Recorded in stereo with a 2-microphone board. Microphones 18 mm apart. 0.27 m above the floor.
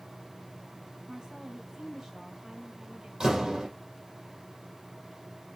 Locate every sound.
1.1 s a woman speaking: 40° right (ahead or behind), 5.5 m
3.2 s a door slam: 35° right (ahead or behind), 6 m